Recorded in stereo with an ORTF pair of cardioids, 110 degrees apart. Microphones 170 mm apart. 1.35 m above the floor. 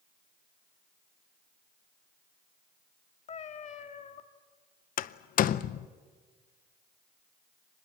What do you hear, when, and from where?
3.3 s a cat meowing: 45° left, 1.7 m
5.0 s a door slam: 55° left, 0.7 m